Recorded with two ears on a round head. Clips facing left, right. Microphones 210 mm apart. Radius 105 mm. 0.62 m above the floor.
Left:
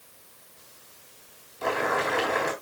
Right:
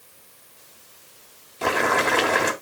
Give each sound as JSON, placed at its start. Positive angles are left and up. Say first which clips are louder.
{"t": 1.6, "sound": "boiling", "louder": "right 4 dB", "side_deg": -65, "distance_m": 3.5}